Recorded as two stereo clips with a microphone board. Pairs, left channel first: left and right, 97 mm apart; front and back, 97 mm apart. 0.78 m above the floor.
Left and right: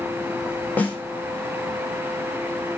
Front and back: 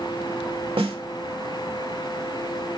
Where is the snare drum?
160° left, 3 m.